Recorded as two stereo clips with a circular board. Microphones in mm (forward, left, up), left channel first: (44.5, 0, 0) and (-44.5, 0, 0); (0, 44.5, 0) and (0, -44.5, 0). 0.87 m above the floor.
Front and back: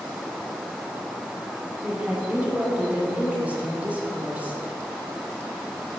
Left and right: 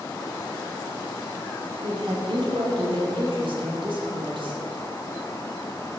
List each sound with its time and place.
1.8 s a woman speaking: 105° right, 1.9 m